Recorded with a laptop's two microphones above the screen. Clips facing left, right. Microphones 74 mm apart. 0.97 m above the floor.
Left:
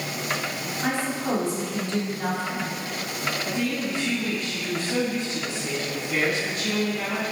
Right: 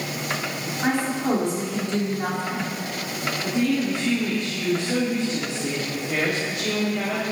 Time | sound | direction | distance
0.8 | a woman speaking | 20° right (ahead or behind) | 2.5 m
3.4 | a woman speaking | 75° right (ahead or behind) | 2.5 m